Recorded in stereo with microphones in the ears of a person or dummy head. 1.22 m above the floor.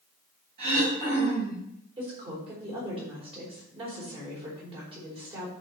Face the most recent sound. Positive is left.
turn(degrees=-35)  # may be behind; listen again after turning